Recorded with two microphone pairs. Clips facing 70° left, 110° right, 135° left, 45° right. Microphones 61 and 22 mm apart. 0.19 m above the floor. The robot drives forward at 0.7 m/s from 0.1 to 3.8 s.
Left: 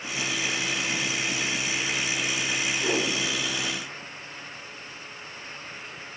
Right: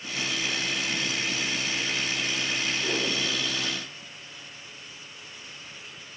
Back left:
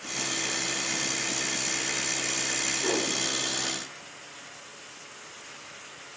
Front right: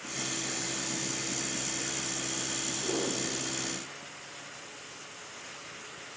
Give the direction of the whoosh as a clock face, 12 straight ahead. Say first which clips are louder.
Left 5 dB, back left 3 dB; 8 o'clock.